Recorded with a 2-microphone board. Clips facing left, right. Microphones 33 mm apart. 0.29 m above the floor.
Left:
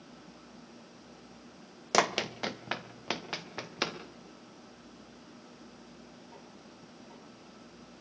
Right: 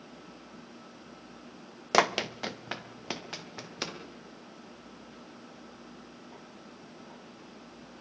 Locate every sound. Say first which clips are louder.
1.9 s running footsteps: right 2 dB; 15° right (ahead or behind), 0.8 m; by 4.0 s 20° left (ahead or behind), 3 m